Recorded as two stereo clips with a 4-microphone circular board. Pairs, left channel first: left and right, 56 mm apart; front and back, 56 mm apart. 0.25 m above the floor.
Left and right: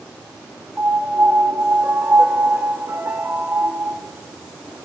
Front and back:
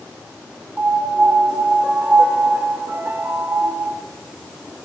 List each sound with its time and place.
0.8 s a piano: 135° right, 0.6 m